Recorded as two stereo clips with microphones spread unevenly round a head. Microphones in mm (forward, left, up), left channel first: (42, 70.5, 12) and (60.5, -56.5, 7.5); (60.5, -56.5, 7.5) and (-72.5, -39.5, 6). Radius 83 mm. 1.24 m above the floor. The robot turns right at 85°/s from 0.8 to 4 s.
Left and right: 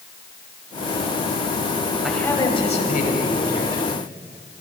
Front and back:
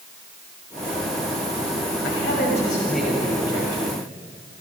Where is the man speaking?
5° left, 6 m; by 4.1 s 170° left, 6 m.